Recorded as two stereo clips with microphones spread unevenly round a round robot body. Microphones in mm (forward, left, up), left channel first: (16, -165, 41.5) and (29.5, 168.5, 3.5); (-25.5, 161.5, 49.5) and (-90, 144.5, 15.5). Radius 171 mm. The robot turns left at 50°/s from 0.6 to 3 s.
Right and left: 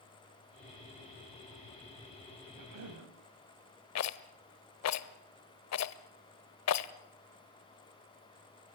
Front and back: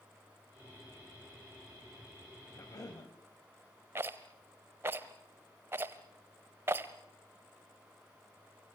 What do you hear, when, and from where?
2.5 s a cough: 70° left, 2.5 m; by 3.1 s 50° left, 2.5 m
4.0 s a rattle: 135° right, 0.8 m